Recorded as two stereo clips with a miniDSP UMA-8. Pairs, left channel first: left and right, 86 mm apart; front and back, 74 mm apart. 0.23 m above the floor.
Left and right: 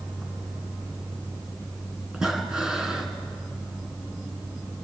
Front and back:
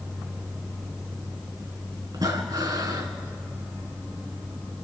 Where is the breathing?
170° right, 3 m.